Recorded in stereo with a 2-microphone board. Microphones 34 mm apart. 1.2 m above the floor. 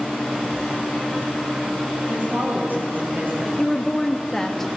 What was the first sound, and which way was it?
A woman speaking, 70° right (ahead or behind).